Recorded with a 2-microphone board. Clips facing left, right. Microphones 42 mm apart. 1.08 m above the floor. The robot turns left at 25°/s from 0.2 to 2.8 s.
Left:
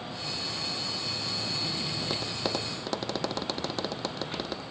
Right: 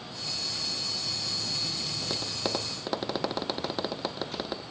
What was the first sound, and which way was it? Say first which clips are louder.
Tapping: right 1 dB; 5° left (ahead or behind).